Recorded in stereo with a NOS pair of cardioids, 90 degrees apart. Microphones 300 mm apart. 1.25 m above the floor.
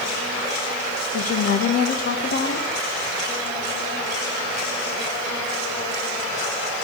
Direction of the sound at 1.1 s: 55° left.